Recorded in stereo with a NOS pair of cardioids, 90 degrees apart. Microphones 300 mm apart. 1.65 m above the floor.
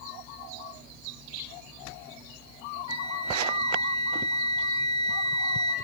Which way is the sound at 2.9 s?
60° right.